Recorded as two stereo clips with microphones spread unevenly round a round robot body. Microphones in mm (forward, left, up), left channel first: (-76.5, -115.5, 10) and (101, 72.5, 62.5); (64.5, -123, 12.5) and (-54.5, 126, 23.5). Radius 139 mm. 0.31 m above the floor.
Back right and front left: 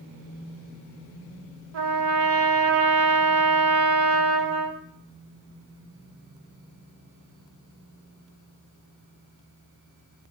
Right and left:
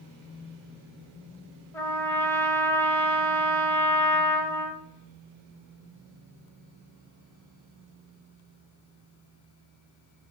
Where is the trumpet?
15° left, 0.7 m.